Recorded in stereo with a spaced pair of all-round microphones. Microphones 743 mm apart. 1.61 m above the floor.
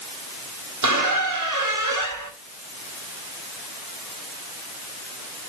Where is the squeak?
25° right (ahead or behind), 1.1 m.